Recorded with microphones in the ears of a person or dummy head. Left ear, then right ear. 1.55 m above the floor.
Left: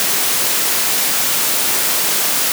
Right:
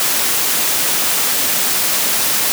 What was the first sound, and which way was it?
Only background noise.